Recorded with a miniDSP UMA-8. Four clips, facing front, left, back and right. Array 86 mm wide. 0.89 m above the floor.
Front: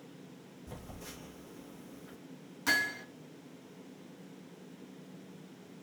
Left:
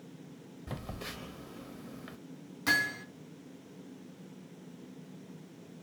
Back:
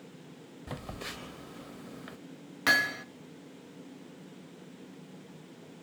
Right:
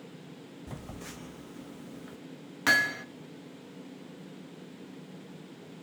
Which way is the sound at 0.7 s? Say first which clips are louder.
Left 3 dB, back 7 dB; 165° left.